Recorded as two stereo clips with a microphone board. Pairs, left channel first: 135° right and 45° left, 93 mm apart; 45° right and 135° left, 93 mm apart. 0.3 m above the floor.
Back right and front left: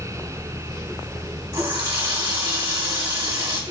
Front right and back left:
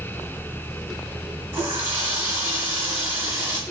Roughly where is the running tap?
Left.